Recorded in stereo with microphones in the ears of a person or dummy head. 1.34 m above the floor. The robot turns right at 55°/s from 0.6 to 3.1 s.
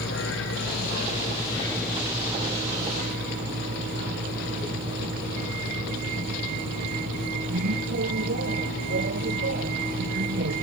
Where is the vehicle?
105° left; by 10.6 s 120° right.